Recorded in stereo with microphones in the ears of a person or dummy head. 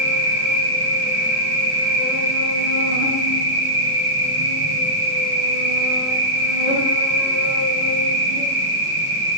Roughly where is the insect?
Right.